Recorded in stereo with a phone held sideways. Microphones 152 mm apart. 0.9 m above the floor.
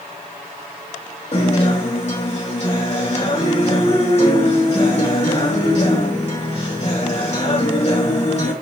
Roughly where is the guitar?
Left.